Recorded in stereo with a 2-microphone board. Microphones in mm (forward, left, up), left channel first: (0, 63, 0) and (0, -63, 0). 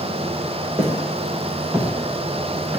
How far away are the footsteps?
About 6.5 m.